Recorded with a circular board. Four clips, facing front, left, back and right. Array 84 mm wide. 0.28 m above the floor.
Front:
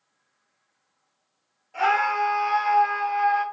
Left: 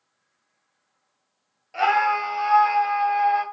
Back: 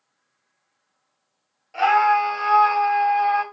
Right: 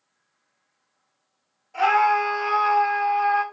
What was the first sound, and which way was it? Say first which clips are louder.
A scream: right 2 dB, back 5 dB; 125° left.